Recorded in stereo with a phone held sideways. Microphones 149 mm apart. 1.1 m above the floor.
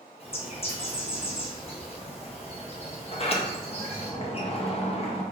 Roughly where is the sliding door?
Left.